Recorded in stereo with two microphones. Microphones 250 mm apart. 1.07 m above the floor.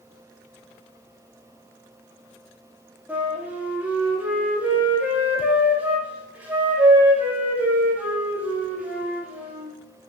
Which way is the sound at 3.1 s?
5° right (ahead or behind).